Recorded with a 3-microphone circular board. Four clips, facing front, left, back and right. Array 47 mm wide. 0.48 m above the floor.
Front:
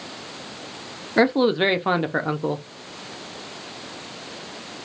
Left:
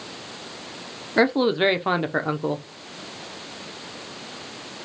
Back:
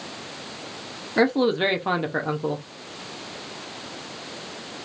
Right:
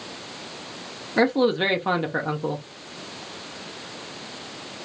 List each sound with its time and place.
1.2 s a man speaking: 40° left, 0.7 m